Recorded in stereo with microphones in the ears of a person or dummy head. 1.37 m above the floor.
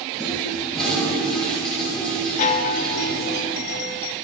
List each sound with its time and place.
0.2 s a toilet flushing: 5° left (ahead or behind), 1.9 m
2.4 s a chime: 40° left (ahead or behind), 0.7 m